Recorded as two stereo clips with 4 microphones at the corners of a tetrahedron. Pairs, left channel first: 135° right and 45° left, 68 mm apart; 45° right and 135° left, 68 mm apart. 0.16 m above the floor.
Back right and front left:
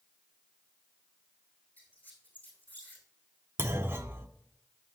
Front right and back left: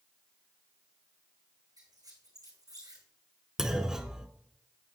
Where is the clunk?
60° left, 0.8 m.